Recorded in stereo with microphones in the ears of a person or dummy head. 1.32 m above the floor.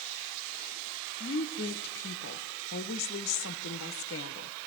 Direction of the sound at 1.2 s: 75° left (ahead or behind).